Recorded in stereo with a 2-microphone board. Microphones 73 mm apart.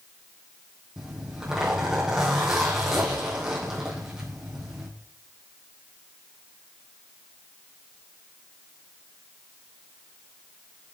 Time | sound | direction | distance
1.0 | a zipper | 10° right (ahead or behind) | 3.5 m